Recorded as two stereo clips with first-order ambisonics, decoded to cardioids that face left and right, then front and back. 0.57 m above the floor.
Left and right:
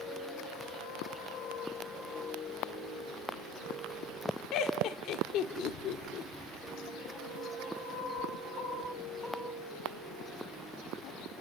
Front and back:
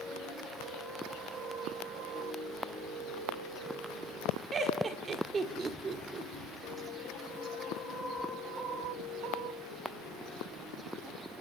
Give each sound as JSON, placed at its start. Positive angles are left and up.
{"t": 4.5, "sound": "laughter", "azimuth_deg": 115, "distance_m": 1.8}